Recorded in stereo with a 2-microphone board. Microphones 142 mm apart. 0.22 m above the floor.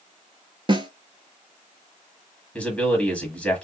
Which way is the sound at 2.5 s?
10° left (ahead or behind).